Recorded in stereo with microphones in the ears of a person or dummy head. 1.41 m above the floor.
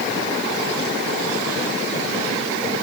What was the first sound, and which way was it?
Only background noise.